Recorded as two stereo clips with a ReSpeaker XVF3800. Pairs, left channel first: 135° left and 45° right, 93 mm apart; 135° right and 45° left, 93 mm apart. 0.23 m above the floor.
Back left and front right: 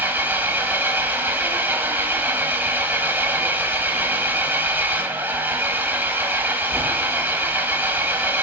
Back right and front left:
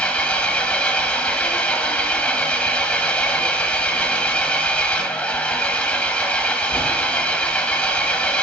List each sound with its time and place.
0.0 s an engine running: 75° right, 1.0 m